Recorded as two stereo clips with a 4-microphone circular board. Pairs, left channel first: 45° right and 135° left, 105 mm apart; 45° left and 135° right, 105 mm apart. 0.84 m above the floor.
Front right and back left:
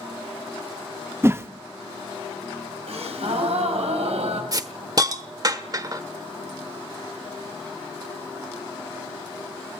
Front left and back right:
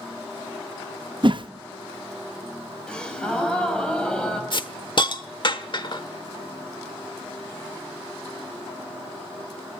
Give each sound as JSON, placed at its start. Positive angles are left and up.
{"t": 1.2, "sound": "a whoosh", "azimuth_deg": -160, "distance_m": 0.7}
{"t": 2.9, "sound": "a gasp", "azimuth_deg": 125, "distance_m": 4.0}
{"t": 4.5, "sound": "a hiss", "azimuth_deg": 85, "distance_m": 1.0}